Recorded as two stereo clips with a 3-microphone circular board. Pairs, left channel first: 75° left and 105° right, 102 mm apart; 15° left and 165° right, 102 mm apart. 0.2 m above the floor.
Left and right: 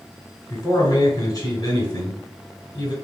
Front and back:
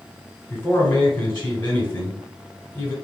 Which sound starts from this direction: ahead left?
A man speaking, at 0.5 s.